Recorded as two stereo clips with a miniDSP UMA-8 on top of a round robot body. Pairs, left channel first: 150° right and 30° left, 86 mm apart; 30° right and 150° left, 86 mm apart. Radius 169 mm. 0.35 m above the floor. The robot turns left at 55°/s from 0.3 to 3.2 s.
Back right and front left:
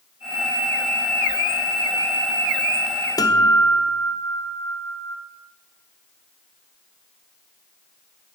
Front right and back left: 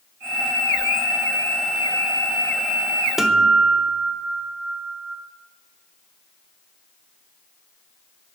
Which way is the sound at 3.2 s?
125° right.